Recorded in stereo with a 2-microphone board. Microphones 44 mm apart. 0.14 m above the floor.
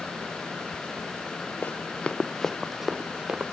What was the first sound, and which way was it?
Running footsteps, 35° left (ahead or behind).